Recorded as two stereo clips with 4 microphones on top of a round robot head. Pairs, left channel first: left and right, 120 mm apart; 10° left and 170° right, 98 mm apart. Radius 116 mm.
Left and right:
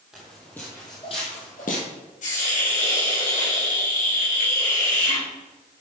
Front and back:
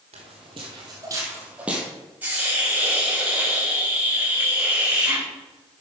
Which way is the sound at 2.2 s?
115° left.